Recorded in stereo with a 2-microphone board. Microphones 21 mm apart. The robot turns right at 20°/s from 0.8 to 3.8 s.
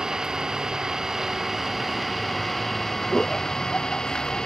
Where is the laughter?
45° left (ahead or behind); by 4.5 s 30° left (ahead or behind).